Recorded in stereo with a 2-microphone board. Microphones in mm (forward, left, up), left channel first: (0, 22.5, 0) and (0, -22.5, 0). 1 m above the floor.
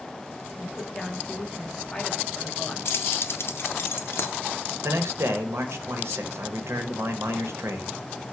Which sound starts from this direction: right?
A man speaking, at 4.8 s.